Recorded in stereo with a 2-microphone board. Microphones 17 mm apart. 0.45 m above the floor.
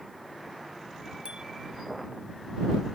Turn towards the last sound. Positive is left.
turn(degrees=-70)  # may be behind; listen again after turning